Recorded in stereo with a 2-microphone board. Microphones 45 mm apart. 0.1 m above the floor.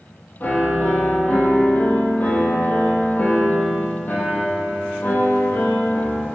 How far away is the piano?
About 2 m.